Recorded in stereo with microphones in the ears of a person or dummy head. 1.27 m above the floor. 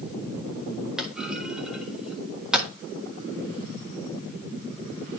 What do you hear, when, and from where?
1.0 s a clunk: 5° right (ahead or behind), 1.4 m